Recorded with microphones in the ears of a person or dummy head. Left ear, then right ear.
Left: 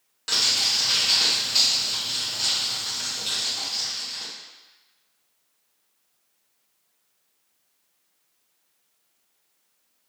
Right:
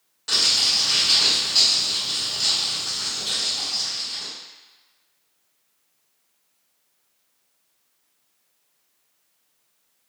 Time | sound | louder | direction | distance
0.3 | crumpling | right 2 dB | 25° left (ahead or behind) | 1.3 m